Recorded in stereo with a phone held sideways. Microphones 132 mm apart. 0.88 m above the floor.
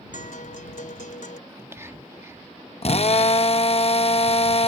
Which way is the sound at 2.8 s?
50° left (ahead or behind).